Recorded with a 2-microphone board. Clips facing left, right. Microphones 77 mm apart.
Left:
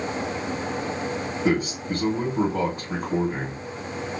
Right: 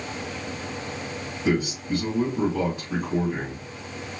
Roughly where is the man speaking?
Left.